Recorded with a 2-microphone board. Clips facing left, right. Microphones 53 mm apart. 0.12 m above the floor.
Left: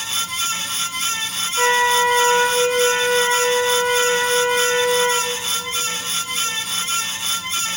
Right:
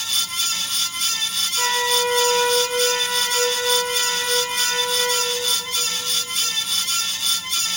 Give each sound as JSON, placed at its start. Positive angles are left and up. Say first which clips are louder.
{"t": 1.6, "sound": "a flute", "louder": "left 6 dB", "side_deg": 30, "distance_m": 0.8}